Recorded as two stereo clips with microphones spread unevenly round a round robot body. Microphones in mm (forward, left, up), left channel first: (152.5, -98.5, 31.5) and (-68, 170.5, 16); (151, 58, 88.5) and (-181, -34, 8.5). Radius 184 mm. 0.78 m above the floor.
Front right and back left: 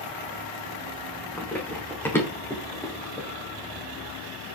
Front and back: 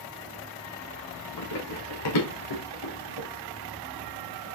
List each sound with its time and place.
1.4 s running footsteps: 35° left, 4 m; by 3.3 s 30° left, 3 m